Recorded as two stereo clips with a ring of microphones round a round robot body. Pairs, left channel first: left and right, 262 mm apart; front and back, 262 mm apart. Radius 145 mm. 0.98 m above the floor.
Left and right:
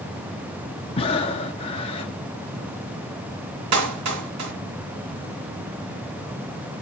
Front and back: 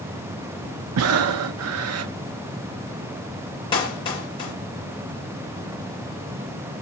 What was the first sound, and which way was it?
Breathing, 160° left.